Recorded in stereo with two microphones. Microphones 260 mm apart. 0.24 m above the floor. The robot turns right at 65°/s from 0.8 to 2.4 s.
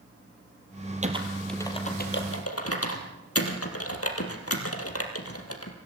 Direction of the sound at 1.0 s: 25° right (ahead or behind).